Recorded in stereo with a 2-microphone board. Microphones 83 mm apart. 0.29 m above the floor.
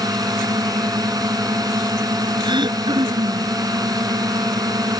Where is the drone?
50° right (ahead or behind).